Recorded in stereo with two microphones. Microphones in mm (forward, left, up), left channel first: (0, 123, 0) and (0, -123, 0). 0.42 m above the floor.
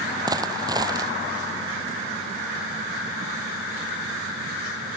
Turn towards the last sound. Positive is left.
turn(degrees=-15)  # may be behind; listen again after turning